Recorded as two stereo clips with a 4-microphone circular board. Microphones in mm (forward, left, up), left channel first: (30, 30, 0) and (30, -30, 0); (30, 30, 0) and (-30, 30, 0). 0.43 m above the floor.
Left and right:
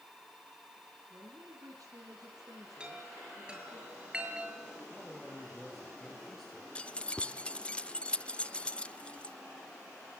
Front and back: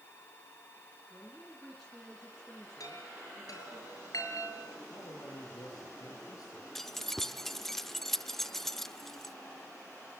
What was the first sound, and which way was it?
A man speaking, 85° right.